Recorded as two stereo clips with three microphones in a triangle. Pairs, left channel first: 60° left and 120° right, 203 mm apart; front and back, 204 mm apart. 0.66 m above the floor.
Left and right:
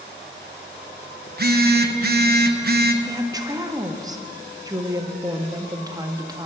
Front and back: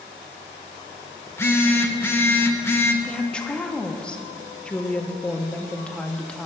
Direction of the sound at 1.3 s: 75° right.